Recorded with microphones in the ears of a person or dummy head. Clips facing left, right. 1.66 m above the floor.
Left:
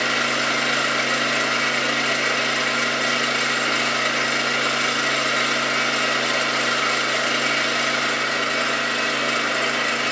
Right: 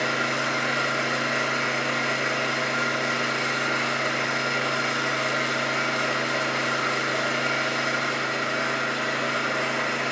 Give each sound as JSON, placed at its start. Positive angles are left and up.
{"t": 0.0, "sound": "an engine running", "side_deg": 65, "distance_m": 3.0}